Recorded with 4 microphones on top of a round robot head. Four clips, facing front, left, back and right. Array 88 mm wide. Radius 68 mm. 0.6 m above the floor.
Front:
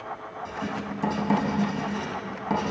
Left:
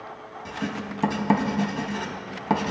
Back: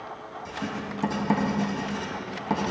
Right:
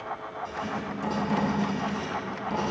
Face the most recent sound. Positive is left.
turn(degrees=90)